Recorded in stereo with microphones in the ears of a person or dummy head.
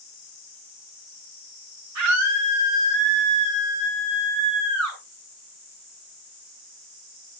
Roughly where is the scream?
Right.